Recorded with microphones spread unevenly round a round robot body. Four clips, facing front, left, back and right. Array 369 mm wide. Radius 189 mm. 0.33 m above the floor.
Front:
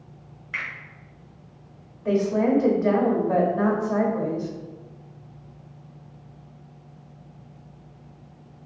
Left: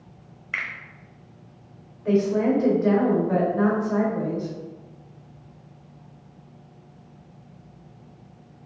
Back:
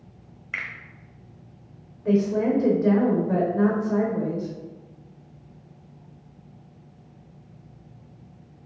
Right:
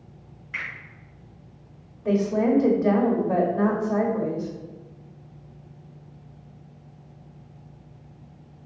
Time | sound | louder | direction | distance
0.5 | a finger snap | left 3 dB, front 1 dB | 110° left | 1.4 m
2.0 | a woman speaking | left 1 dB, even | 130° right | 1.0 m